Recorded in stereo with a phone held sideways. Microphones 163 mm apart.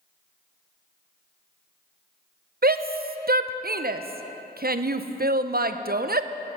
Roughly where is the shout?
Right.